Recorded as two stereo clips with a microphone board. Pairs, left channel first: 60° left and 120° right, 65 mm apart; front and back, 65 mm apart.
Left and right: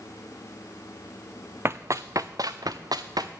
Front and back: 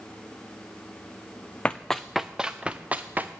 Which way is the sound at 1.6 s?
70° right.